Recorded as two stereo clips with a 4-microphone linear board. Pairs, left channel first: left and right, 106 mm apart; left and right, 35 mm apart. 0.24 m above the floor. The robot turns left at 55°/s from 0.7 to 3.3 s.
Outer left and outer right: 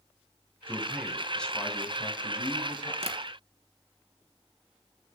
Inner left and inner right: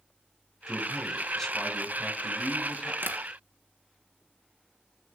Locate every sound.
0.7 s a man speaking: 155° right, 1.8 m; by 2.9 s 85° left, 1.8 m
3.0 s tapping: 75° right (ahead or behind), 1.2 m